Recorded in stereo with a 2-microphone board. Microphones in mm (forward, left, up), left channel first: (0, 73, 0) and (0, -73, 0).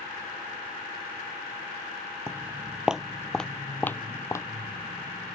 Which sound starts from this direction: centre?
Footsteps, at 2.3 s.